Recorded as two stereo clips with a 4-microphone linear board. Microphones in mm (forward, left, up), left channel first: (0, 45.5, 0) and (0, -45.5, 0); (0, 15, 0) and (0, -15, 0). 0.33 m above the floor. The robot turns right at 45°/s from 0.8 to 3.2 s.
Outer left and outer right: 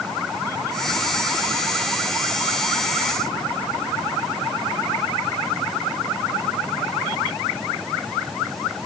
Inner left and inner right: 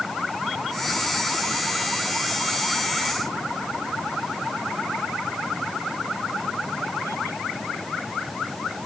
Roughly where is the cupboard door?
No cupboard door in this recording.